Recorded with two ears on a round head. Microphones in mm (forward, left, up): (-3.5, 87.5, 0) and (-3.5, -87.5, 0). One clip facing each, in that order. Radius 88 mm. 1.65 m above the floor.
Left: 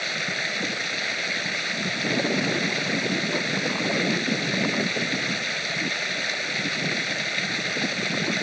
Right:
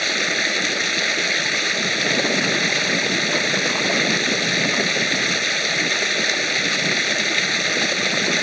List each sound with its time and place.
0.0 s running water: 60° right (ahead or behind)